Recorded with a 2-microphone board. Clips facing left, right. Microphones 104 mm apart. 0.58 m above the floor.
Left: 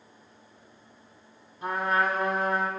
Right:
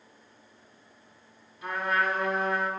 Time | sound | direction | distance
1.6 | a trumpet | 35° left (ahead or behind) | 1.7 m